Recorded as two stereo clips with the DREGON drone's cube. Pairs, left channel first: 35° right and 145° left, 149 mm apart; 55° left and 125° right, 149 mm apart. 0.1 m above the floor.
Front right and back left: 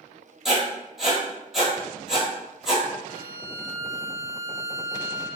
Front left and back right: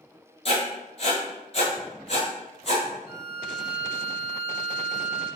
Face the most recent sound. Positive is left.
turn(degrees=-65)